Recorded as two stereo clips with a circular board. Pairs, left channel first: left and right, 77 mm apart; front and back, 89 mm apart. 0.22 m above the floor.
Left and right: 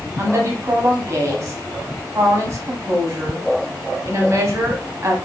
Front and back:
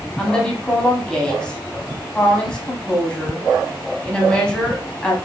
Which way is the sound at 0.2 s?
75° right.